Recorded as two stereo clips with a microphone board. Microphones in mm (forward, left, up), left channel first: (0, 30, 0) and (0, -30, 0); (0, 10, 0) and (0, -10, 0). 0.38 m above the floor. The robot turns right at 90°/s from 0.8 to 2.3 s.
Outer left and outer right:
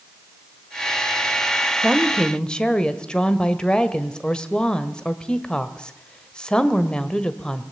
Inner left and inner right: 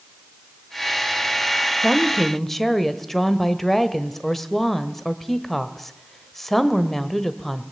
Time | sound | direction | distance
1.8 | a woman speaking | 25° right | 1.6 m